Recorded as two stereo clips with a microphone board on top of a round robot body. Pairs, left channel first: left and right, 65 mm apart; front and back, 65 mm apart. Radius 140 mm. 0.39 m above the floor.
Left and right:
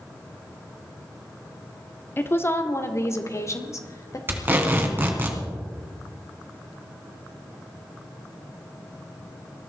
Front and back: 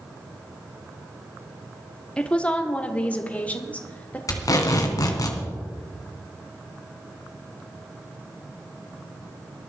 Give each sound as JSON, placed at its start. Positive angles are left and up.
{"t": 2.2, "sound": "a woman speaking", "azimuth_deg": 60, "distance_m": 1.6}
{"t": 4.3, "sound": "tape being pulled", "azimuth_deg": -30, "distance_m": 2.5}